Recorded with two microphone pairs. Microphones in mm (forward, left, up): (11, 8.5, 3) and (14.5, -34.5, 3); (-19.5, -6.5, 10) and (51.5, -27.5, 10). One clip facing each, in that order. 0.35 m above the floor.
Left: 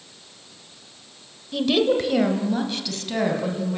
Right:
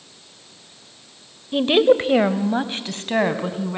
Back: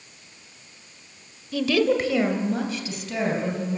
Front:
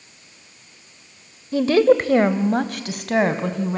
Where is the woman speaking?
50° right, 1.6 m; by 3.8 s 30° right, 3.5 m.